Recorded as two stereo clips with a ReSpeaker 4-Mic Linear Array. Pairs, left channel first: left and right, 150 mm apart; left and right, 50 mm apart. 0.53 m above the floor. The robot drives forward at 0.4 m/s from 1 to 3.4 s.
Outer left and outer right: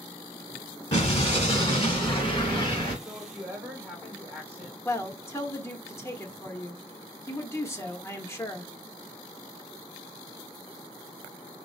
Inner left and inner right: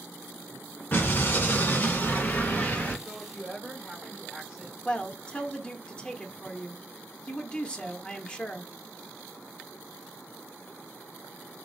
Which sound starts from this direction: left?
An explosion, at 0.9 s.